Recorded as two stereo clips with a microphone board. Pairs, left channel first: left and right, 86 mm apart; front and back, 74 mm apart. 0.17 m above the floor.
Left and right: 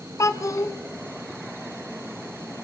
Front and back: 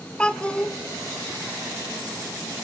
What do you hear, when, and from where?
0.2 s a child speaking: 70° left, 0.9 m